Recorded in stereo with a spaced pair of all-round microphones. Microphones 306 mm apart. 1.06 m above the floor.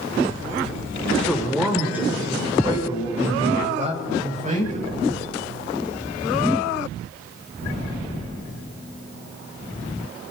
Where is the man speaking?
5° left (ahead or behind), 3 m; by 4.9 s 25° right (ahead or behind), 6 m.